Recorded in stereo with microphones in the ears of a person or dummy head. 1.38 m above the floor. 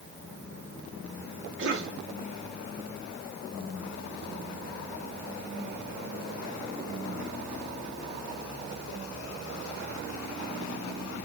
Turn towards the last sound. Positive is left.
turn(degrees=-75)  # may be behind; listen again after turning